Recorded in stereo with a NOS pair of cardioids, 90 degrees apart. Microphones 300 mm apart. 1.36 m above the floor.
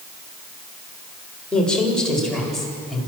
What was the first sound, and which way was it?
A woman speaking, 5° left.